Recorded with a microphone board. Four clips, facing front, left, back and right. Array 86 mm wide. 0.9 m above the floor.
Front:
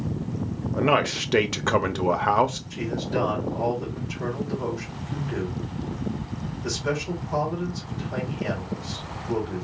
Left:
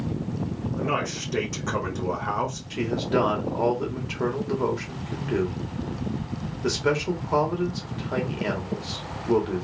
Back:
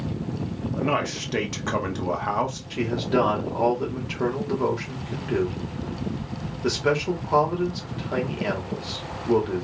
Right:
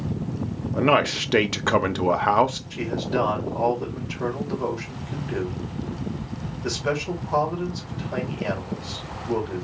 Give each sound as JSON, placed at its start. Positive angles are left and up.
{"t": 0.8, "sound": "a man speaking", "azimuth_deg": -65, "distance_m": 0.9}
{"t": 2.7, "sound": "a man speaking", "azimuth_deg": 135, "distance_m": 2.0}